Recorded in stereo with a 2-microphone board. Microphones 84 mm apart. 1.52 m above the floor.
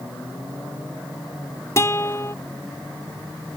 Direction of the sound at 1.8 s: 30° left (ahead or behind).